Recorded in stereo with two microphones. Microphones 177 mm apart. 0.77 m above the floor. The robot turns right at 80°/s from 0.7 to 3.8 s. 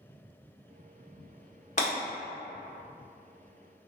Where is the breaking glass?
40° left (ahead or behind), 1.3 m; by 1.9 s 55° left (ahead or behind), 1.3 m.